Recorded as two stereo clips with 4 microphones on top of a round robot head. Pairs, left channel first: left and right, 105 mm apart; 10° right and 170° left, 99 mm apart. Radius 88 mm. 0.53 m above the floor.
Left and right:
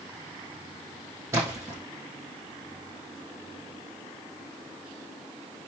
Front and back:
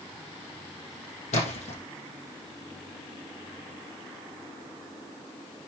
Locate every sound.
1.3 s a splash: 20° right, 4.5 m